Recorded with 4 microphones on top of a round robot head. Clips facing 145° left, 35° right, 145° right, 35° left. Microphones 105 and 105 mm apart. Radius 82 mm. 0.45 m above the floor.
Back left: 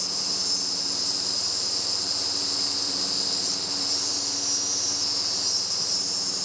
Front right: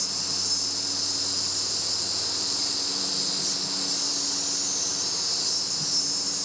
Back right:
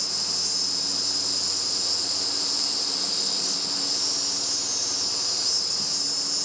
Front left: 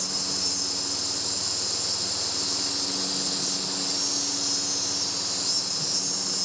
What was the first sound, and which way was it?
An insect, 115° right.